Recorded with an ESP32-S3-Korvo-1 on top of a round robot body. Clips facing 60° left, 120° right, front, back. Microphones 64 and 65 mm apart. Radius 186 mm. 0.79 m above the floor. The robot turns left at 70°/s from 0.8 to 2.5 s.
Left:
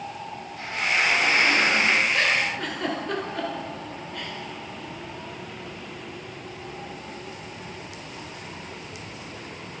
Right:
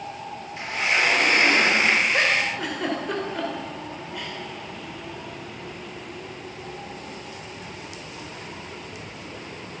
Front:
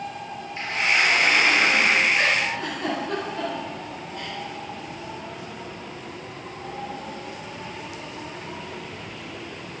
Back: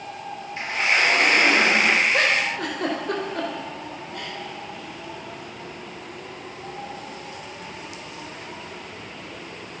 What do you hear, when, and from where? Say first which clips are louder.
0.6 s a sliding door: right 1 dB, back 1 dB; 110° right, 3.5 m; by 2.0 s 165° left, 3.5 m
2.1 s a giggle: right 1 dB, back 1 dB; straight behind, 4 m; by 4.3 s 155° left, 4 m